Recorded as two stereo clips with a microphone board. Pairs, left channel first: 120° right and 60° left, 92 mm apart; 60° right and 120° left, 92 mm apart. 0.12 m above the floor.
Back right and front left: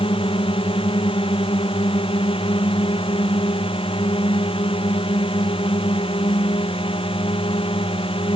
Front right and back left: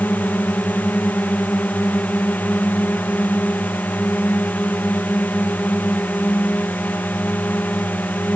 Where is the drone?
130° right.